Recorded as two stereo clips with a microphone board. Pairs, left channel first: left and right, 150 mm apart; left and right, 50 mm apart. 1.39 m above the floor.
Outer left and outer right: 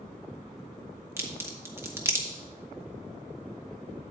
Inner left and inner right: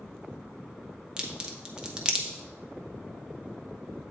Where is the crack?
15° right (ahead or behind), 1.2 m.